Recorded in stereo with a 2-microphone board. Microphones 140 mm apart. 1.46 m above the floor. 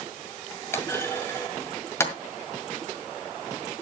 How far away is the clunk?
About 1.8 m.